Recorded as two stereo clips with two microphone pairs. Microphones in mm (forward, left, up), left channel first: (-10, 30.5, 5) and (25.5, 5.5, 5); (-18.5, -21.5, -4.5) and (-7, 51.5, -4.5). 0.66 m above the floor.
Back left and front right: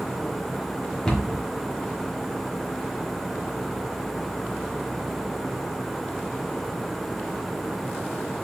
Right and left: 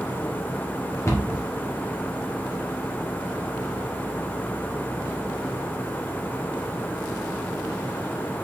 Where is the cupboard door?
140° right, 1.3 m.